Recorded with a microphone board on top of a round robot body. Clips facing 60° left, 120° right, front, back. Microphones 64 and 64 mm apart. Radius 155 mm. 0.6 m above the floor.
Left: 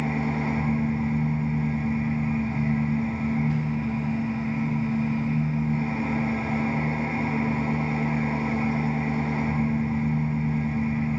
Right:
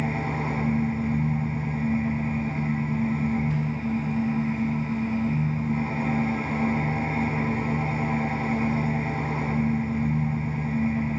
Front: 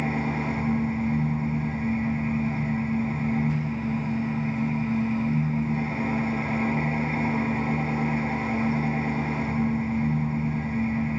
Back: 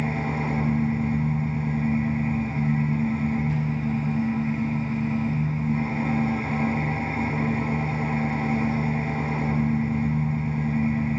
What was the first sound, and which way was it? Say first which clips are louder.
An engine running: left 1 dB, even; 55° right.